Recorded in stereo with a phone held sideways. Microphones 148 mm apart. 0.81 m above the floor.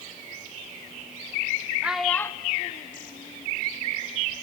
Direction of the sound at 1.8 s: 10° right (ahead or behind).